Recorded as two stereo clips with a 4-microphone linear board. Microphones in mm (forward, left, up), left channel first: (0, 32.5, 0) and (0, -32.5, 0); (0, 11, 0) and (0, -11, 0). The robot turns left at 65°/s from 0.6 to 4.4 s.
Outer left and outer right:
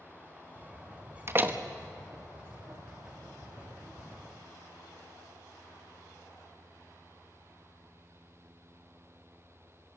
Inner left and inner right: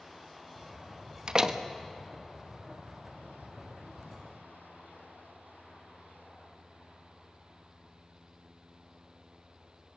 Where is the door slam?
40° right (ahead or behind), 1.1 m; by 1.6 s 20° right (ahead or behind), 1.1 m.